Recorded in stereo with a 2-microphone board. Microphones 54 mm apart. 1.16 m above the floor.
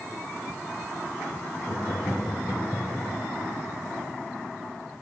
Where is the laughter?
80° left, 2.5 m; by 3.1 s 60° left (ahead or behind), 3.5 m.